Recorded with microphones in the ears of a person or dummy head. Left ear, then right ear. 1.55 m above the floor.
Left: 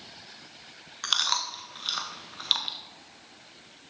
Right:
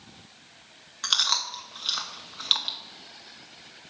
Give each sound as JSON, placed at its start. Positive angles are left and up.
{"t": 1.0, "sound": "chewing", "side_deg": 0, "distance_m": 0.7}